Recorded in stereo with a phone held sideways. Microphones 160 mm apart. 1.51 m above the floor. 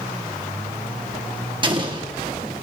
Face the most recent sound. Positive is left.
turn(degrees=-30)  # may be behind; listen again after turning